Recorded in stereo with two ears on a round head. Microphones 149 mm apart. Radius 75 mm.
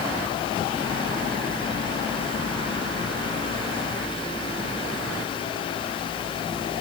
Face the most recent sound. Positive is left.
No sound to turn to.